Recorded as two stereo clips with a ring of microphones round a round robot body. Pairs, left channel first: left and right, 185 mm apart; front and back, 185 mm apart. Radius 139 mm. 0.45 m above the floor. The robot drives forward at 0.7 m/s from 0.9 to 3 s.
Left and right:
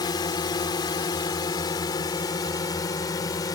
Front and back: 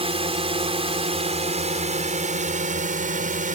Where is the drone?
145° left; by 3.5 s 155° left.